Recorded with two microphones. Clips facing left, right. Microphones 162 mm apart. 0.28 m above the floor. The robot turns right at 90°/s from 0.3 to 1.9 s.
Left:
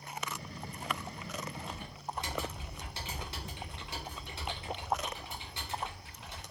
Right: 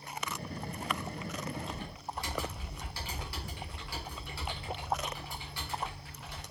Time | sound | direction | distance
1.7 | typing on a keyboard | centre (ahead or behind) | 1.1 m